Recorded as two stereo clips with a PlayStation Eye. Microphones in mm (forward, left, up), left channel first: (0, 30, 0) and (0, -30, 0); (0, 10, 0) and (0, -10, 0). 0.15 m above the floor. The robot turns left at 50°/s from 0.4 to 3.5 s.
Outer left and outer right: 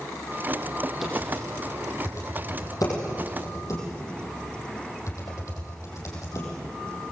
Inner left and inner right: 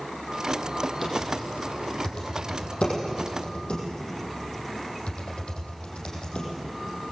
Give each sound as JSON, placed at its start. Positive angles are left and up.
{"t": 1.0, "sound": "typing on a keyboard", "side_deg": 0, "distance_m": 6.0}